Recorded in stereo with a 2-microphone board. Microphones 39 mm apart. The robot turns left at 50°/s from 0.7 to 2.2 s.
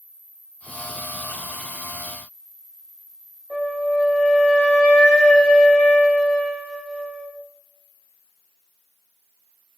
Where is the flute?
15° right (ahead or behind), 1.1 m.